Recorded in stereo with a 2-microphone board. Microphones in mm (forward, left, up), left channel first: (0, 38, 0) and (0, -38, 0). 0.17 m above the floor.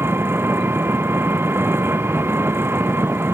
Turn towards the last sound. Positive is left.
turn(degrees=-30)  # may be behind; listen again after turning